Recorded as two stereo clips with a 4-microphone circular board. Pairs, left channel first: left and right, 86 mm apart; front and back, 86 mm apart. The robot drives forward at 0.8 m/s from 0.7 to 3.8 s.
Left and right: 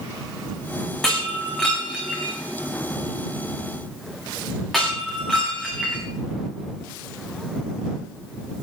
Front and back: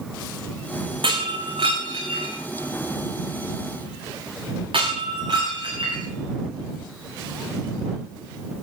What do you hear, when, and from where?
1.0 s breaking glass: 175° left, 9 m